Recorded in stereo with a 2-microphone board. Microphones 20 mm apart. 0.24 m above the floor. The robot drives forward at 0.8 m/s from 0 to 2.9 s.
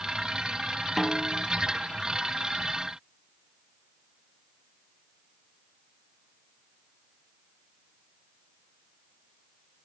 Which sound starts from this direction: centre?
A snare drum, at 1.0 s.